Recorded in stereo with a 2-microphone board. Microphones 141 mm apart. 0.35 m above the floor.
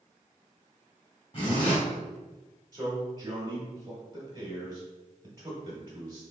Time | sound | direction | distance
1.3 | a zipper | 40° left (ahead or behind) | 1.7 m
2.7 | a man speaking | 30° right (ahead or behind) | 1.3 m